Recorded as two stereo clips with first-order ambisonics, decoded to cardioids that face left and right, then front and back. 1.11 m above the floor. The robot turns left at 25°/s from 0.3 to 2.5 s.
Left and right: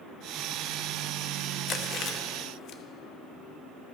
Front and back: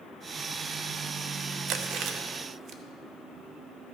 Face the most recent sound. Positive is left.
turn(degrees=130)